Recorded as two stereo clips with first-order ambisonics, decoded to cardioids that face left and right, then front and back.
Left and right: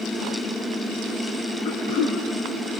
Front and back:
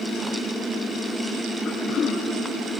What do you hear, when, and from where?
1.6 s throat clearing: 70° left, 4 m